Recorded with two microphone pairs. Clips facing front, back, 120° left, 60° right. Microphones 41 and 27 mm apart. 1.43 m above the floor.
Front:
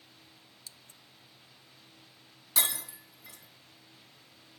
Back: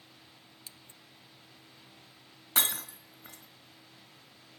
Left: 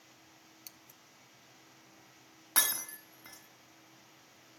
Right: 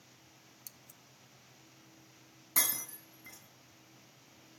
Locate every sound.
0.7 s scissors: 140° left, 0.7 m
2.6 s breaking glass: 135° left, 3.5 m